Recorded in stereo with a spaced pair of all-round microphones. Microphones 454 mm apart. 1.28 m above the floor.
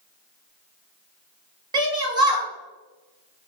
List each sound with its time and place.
1.7 s a shout: 10° right (ahead or behind), 1.4 m